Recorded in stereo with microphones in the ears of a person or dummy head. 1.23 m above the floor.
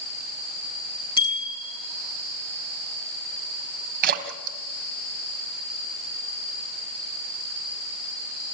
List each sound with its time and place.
1.2 s a bicycle bell: 25° left (ahead or behind), 7.5 m
4.0 s a splash: 50° right (ahead or behind), 1.9 m